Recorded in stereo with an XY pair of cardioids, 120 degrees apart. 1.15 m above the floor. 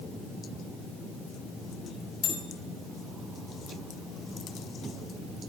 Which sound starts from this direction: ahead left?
A bell, at 2.2 s.